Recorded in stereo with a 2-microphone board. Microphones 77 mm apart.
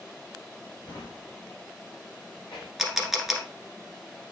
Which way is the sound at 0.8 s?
70° left (ahead or behind).